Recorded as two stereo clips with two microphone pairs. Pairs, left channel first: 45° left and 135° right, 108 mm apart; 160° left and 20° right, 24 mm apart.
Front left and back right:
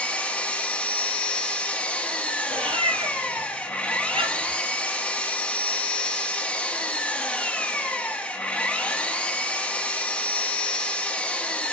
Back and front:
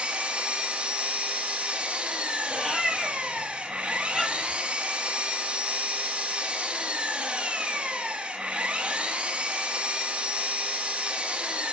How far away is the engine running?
About 1.4 m.